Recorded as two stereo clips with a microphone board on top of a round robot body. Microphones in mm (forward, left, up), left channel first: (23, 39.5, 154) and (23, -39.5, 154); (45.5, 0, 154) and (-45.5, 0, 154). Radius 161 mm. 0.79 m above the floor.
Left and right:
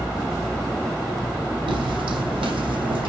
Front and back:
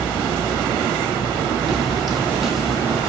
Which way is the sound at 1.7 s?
90° right.